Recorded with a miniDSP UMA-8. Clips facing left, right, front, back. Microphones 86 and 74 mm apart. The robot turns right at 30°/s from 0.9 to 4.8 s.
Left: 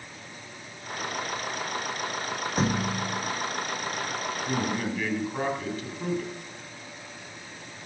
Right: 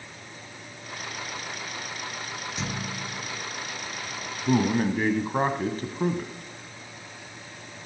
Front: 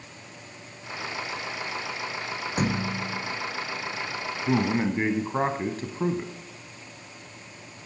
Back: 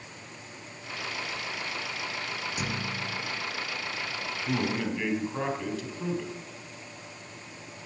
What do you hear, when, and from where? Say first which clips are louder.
2.6 s a thud: left 8 dB, front 9 dB; 45° left, 1.2 m; by 3.3 s 70° left, 1.2 m
4.5 s a man speaking: right 8 dB, front 5 dB; 55° right, 1.6 m; by 6.3 s 45° right, 1.6 m